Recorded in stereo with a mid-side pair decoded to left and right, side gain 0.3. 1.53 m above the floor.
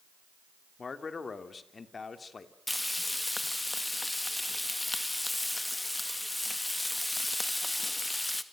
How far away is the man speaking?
About 3 m.